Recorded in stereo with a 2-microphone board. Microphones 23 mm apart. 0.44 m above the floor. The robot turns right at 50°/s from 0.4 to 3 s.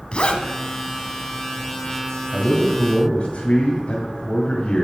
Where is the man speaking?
25° left, 2 m; by 4.8 s 55° left, 2 m.